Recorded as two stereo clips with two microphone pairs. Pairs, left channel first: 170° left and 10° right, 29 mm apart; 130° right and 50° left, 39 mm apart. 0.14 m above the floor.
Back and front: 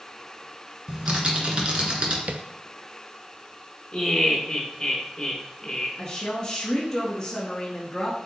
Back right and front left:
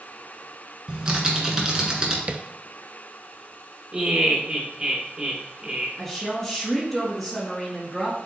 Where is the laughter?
110° left, 2.5 m.